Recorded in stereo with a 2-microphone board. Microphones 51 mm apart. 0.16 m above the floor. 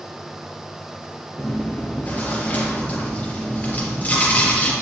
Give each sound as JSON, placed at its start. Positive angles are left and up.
{"t": 1.4, "sound": "chewing", "side_deg": 30, "distance_m": 3.5}